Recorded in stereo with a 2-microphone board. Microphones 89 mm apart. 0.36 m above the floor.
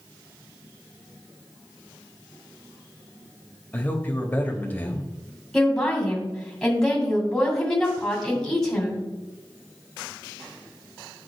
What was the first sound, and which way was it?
A man speaking, 20° left (ahead or behind).